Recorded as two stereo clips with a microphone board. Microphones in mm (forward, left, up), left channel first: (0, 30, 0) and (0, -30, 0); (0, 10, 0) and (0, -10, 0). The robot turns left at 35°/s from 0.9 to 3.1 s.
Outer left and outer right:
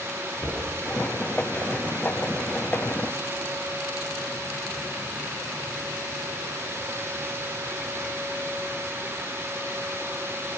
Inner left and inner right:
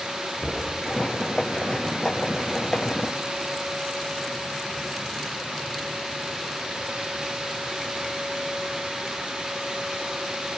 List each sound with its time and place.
0.4 s knocking: 30° left (ahead or behind), 8 m